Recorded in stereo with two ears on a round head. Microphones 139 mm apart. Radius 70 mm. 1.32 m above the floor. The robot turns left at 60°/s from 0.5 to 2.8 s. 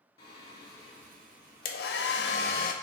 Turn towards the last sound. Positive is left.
turn(degrees=50)